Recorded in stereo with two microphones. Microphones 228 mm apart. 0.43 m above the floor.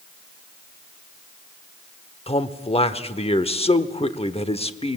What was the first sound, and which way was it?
A man speaking, 25° left (ahead or behind).